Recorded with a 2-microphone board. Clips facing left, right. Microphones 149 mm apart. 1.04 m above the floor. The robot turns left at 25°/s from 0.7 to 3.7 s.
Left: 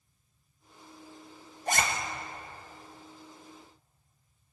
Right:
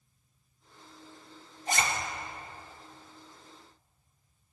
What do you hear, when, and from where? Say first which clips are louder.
1.7 s a zipper: left 1 dB; 55° left (ahead or behind), 1.5 m; by 1.8 s 50° left (ahead or behind), 1.5 m